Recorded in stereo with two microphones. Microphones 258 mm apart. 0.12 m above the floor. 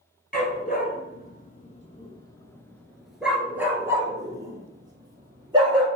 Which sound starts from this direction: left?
A dog barking, at 0.3 s.